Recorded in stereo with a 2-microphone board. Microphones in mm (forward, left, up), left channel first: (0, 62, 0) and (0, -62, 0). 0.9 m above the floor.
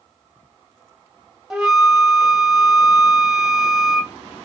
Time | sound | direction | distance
1.5 | a flute | 5° right (ahead or behind) | 0.7 m